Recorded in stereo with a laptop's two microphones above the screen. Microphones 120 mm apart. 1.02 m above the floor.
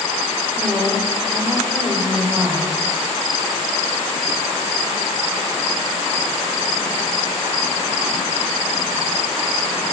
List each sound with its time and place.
0.6 s a woman speaking: 5° left (ahead or behind), 3.5 m